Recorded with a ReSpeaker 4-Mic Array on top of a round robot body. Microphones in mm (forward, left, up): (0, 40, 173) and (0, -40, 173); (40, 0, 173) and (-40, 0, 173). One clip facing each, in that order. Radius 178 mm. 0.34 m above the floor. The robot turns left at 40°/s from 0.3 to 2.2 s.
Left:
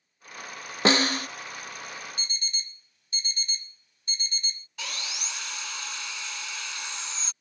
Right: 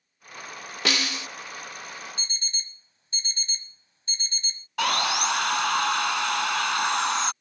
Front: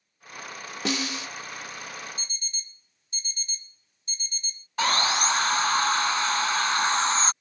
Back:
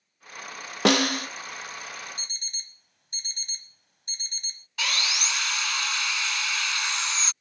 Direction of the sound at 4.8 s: 55° right.